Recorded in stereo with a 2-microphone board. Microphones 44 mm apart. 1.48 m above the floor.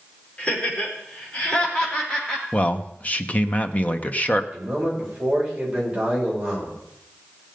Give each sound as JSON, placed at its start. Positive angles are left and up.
{"t": 0.4, "sound": "laughter", "side_deg": 25, "distance_m": 6.0}
{"t": 2.5, "sound": "a man speaking", "side_deg": 35, "distance_m": 0.9}
{"t": 4.5, "sound": "a man speaking", "side_deg": -15, "distance_m": 7.0}